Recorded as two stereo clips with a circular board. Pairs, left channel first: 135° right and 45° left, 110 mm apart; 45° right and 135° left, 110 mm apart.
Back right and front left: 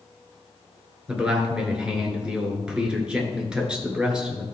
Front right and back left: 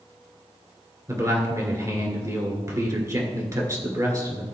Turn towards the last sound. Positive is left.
turn(degrees=120)